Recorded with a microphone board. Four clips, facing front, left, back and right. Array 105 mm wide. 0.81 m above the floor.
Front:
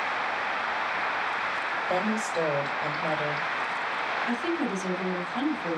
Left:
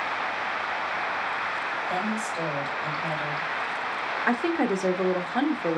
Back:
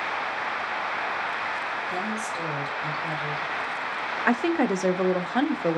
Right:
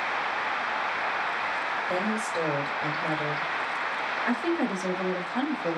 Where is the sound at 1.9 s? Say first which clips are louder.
Right 1 dB, front 3 dB; 35° right, 3.5 m.